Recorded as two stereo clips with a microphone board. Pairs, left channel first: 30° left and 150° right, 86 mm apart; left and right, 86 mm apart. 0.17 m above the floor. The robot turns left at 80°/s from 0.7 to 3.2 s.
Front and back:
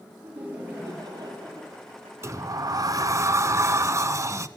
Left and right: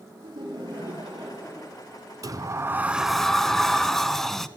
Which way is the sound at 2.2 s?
110° right.